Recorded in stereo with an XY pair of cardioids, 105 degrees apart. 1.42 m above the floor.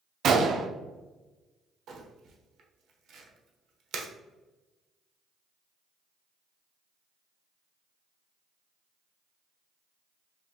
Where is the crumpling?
60° right, 0.8 m.